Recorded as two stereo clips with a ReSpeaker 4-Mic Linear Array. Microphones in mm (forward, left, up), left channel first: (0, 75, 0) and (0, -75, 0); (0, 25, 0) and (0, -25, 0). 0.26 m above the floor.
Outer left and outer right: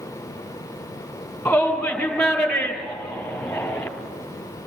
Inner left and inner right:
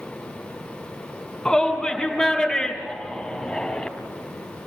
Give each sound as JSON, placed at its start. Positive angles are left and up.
{"t": 1.4, "sound": "a shout", "side_deg": 5, "distance_m": 6.0}